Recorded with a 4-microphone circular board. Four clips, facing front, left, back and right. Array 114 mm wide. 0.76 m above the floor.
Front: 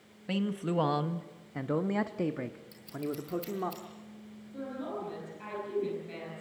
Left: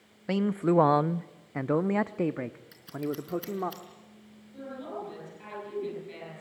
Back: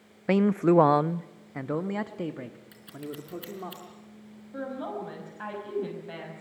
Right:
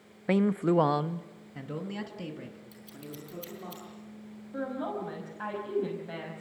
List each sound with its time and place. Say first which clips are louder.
0.3 s a man speaking: even, back 11 dB; 160° right, 0.6 m; by 3.7 s 75° left, 1.6 m
2.7 s scissors: left 11 dB, front 3 dB; 120° left, 5 m
4.5 s a woman speaking: right 5 dB, back 4 dB; 125° right, 5 m